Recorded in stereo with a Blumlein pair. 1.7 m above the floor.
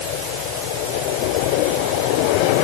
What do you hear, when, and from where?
Only background noise.